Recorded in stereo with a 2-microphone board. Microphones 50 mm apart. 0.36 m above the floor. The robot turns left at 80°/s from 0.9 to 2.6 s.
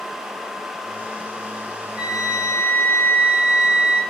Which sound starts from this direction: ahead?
A flute, at 1.9 s.